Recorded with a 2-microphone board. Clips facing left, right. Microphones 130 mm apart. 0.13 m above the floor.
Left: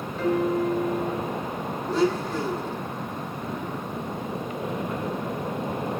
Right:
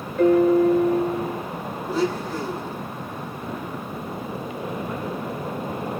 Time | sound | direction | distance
0.2 | a piano | 50° right (ahead or behind) | 1.8 m
1.9 | a blender | 5° right (ahead or behind) | 4 m